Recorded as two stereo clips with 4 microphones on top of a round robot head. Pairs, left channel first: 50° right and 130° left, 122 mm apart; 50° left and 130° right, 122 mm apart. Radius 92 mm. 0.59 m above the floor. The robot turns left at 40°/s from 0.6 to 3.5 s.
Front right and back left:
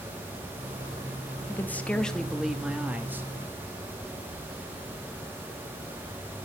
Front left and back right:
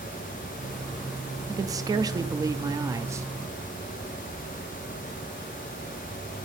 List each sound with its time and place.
1.5 s a man speaking: 105° right, 0.6 m; by 3.3 s 175° right, 0.6 m